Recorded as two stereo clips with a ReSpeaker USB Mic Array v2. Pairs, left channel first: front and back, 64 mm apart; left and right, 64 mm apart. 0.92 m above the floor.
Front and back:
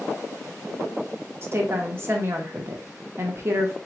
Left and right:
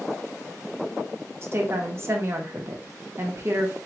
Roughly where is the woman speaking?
Behind right.